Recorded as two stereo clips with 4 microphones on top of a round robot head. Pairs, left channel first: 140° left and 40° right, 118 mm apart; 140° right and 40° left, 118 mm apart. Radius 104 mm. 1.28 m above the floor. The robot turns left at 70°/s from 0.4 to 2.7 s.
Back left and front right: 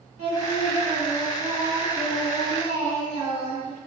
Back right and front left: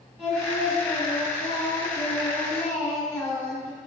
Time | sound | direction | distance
0.2 | singing | 50° right | 1.4 m